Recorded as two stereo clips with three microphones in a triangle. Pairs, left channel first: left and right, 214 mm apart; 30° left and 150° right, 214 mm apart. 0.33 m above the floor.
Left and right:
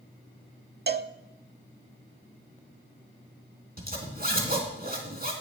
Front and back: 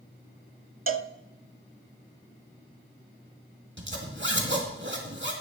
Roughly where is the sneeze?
I don't hear a sneeze.